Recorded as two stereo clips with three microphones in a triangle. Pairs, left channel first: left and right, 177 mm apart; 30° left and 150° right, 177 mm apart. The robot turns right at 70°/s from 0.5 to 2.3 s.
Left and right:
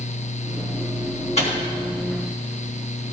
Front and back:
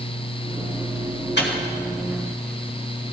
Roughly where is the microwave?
Ahead left.